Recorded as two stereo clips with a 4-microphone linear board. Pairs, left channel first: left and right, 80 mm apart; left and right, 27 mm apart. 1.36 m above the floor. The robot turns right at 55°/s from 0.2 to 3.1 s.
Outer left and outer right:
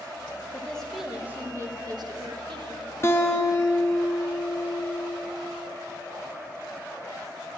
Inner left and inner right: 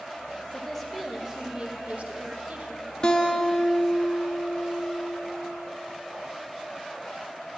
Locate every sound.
0.5 s a woman speaking: 160° left, 0.9 m; by 2.9 s 70° right, 0.9 m
3.0 s a guitar: 30° left (ahead or behind), 0.6 m